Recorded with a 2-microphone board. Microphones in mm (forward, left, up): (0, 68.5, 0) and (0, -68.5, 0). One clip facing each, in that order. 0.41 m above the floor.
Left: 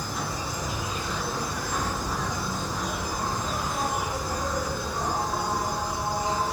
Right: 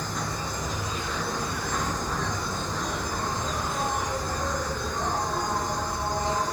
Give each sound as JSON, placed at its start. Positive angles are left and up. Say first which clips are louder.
{"t": 0.0, "sound": "an insect", "louder": "even", "side_deg": 10, "distance_m": 4.0}